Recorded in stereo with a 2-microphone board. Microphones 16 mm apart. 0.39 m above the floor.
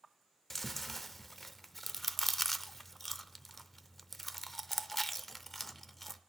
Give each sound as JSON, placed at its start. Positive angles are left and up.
{"t": 0.5, "sound": "chewing", "side_deg": 15, "distance_m": 0.5}